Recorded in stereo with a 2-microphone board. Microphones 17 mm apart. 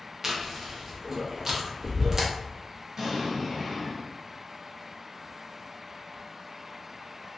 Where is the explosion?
35° right (ahead or behind), 1.3 m.